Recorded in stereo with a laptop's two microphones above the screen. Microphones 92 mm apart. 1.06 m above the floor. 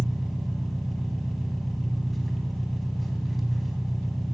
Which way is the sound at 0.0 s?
Centre (ahead or behind).